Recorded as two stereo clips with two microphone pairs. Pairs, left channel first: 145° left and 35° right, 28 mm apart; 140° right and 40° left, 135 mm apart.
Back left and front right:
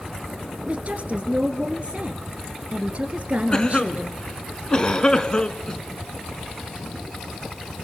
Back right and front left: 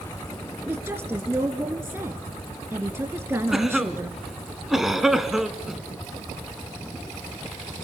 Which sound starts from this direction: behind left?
A cough, at 3.5 s.